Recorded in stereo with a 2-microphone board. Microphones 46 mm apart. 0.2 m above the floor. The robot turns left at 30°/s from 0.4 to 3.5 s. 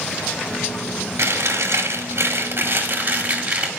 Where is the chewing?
90° right, 1.7 m; by 3.7 s 160° right, 1.7 m.